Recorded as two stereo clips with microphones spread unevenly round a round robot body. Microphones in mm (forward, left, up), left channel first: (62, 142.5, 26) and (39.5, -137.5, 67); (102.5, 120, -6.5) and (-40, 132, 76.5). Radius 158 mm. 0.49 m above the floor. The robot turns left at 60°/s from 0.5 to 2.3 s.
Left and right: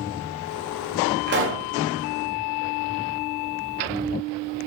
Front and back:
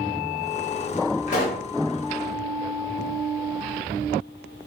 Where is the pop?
35° right, 0.6 m; by 1.7 s 60° right, 0.6 m.